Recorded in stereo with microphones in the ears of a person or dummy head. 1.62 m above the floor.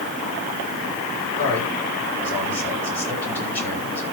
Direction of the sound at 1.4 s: 10° left (ahead or behind).